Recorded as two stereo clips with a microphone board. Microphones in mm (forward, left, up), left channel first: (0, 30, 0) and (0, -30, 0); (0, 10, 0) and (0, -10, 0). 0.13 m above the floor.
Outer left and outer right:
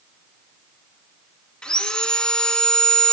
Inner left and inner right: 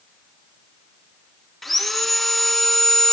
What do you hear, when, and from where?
1.6 s sawing: 15° left (ahead or behind), 1.0 m